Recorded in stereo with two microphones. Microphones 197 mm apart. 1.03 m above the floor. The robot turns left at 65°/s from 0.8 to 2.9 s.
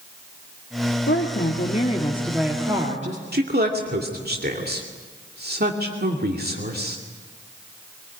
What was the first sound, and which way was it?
A woman speaking, 85° left.